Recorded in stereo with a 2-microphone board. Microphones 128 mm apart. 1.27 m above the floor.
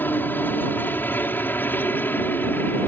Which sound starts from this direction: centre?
A helicopter, at 0.0 s.